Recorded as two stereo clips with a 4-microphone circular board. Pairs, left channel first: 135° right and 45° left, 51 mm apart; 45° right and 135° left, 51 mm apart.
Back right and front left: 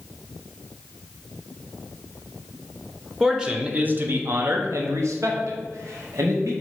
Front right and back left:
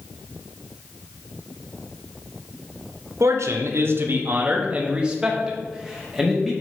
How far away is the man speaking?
About 0.9 m.